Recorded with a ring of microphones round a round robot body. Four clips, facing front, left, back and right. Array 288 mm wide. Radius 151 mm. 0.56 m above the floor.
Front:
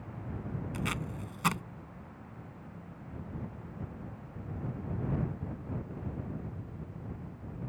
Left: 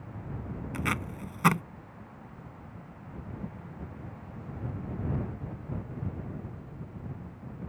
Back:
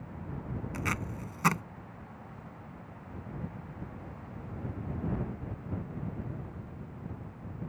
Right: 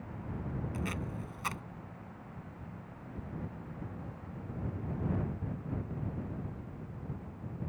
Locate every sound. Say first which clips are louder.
0.7 s tape being pulled: left 5 dB, back 2 dB; 105° left